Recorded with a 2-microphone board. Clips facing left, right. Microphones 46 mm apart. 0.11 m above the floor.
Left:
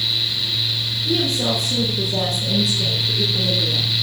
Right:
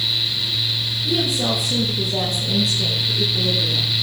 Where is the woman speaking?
10° right (ahead or behind), 6.5 m; by 3.9 s 15° left (ahead or behind), 6.5 m.